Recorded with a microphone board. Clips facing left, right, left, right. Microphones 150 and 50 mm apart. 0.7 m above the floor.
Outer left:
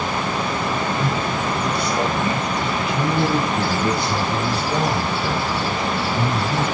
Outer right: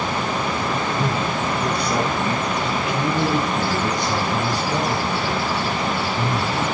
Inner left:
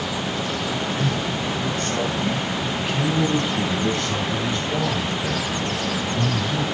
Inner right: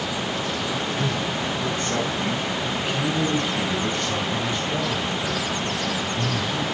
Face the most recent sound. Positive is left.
turn(degrees=20)  # may be behind; listen again after turning